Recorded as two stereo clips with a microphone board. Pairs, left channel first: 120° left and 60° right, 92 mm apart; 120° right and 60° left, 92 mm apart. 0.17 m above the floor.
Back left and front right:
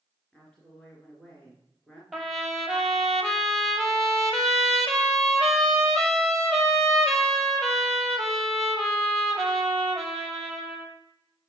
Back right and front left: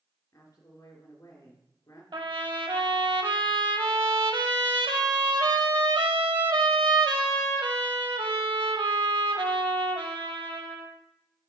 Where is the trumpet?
30° left, 1.1 m.